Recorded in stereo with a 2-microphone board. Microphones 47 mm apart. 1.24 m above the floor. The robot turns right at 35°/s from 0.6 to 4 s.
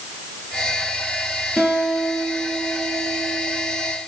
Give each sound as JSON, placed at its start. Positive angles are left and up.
{"t": 1.6, "sound": "a guitar", "azimuth_deg": -175, "distance_m": 6.0}